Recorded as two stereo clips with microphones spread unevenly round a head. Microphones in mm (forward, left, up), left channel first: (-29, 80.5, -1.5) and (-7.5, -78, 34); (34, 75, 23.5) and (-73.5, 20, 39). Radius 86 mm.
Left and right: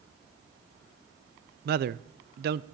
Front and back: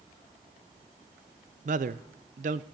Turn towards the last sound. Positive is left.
turn(degrees=-115)